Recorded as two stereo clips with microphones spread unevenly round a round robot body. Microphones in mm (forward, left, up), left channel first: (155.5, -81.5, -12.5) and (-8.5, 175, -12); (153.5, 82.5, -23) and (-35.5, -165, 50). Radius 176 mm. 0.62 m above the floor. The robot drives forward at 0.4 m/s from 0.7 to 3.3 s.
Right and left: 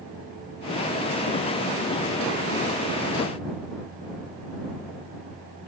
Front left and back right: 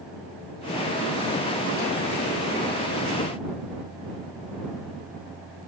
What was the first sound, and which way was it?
Only background noise.